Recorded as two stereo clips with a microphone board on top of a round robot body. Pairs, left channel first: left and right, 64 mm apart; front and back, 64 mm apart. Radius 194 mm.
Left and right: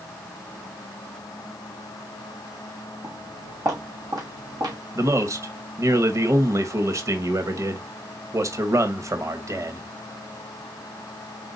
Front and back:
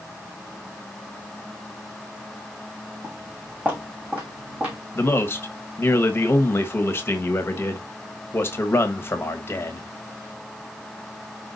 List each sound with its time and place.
3.0 s footsteps: 115° right, 4.5 m; by 4.8 s 110° right, 3 m
5.0 s a man speaking: 55° right, 1.3 m